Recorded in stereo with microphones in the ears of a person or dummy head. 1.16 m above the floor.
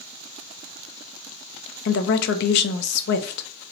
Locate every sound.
1.9 s a woman speaking: 70° left (ahead or behind), 0.6 m